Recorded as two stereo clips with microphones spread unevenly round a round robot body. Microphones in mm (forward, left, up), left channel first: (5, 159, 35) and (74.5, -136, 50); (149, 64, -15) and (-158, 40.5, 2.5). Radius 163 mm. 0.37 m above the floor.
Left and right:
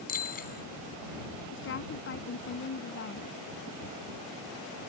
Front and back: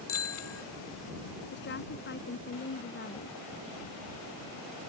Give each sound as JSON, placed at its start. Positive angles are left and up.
{"t": 0.1, "sound": "a bicycle bell", "azimuth_deg": 45}
{"t": 1.5, "sound": "a woman speaking", "azimuth_deg": 55}